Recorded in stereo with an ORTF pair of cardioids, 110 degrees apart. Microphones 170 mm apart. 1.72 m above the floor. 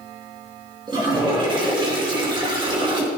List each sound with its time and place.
0.9 s a toilet flushing: 25° right, 3 m